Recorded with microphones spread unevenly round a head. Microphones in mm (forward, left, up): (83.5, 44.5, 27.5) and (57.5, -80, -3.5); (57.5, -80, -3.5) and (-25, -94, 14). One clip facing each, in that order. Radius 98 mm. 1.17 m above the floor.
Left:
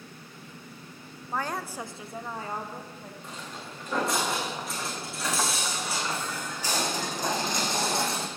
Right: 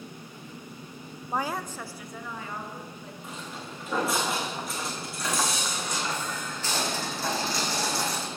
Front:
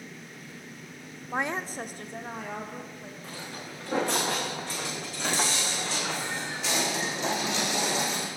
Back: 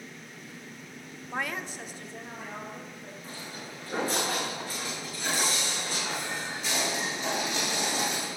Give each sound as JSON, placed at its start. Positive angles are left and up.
{"t": 1.3, "sound": "a woman speaking", "azimuth_deg": -55, "distance_m": 0.6}
{"t": 3.2, "sound": "footsteps", "azimuth_deg": -15, "distance_m": 5.5}